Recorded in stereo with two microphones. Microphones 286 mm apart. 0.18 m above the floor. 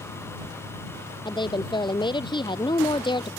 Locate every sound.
1.2 s a woman speaking: 15° left (ahead or behind)